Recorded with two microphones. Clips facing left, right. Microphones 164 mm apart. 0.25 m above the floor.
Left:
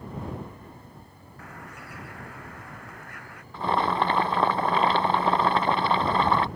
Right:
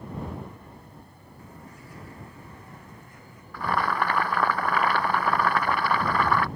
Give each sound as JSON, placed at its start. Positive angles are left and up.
{"t": 1.4, "sound": "a bird", "side_deg": 75}
{"t": 3.5, "sound": "boiling", "side_deg": 25}